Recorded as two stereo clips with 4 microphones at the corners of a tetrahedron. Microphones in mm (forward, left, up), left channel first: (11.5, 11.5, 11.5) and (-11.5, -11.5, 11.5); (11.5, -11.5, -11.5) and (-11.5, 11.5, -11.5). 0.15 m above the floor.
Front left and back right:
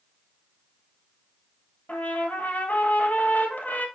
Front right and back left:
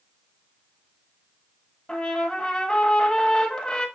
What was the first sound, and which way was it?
A trumpet, 10° left.